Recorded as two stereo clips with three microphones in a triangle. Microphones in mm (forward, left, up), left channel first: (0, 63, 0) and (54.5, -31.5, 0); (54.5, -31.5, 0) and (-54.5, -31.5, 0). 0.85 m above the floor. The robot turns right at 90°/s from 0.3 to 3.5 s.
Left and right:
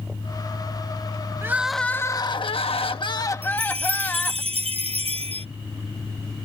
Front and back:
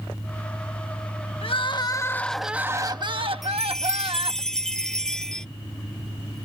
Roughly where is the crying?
Ahead.